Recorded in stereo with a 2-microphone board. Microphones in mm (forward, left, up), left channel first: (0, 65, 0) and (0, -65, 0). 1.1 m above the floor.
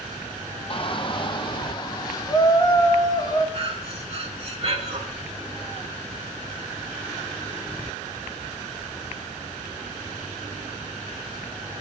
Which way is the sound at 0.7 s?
40° left (ahead or behind).